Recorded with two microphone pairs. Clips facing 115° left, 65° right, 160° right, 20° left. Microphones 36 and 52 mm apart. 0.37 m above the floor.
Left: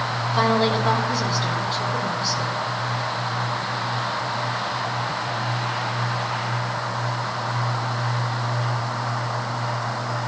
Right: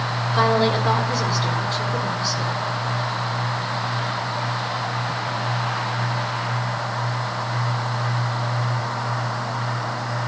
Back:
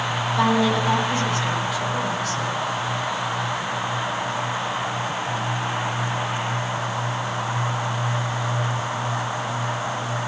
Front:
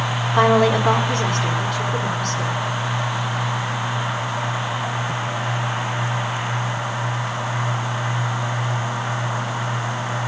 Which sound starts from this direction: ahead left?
A woman speaking, at 0.3 s.